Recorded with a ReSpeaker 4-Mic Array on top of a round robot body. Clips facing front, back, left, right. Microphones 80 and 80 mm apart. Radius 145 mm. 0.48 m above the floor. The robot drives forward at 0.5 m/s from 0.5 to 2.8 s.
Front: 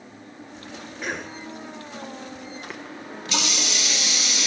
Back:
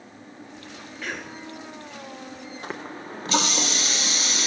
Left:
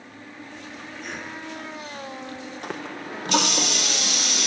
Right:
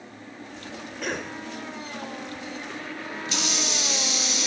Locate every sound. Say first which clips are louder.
1.0 s a cough: front 3 dB, right 5 dB; 70° right, 2 m; by 1.3 s 75° right, 2.0 m
2.6 s a running tap: back 2 dB, left 2 dB; 120° left, 1.2 m; by 4.5 s 125° left, 1.2 m